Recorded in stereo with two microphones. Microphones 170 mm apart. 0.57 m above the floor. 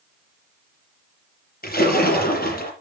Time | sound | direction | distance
1.6 | a splash | 60° left (ahead or behind) | 6 m